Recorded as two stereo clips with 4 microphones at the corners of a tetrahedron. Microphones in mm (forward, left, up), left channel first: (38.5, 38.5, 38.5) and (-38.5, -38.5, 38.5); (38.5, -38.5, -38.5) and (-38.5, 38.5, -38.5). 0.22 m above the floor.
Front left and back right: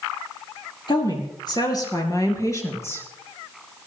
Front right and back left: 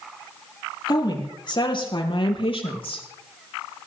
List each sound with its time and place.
0.9 s a woman speaking: 5° left, 5 m; by 3.1 s 20° right, 4.5 m